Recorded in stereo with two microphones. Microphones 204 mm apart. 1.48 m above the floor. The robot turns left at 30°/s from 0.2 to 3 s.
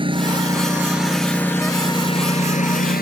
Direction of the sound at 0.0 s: 150° right.